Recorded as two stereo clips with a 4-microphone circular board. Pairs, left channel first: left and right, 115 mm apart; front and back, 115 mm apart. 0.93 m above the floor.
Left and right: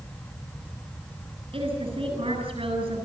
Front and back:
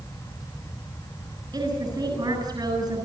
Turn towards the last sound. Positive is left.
turn(degrees=-130)